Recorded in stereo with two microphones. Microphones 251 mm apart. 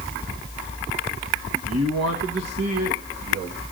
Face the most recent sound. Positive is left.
turn(degrees=-65)  # may be behind; listen again after turning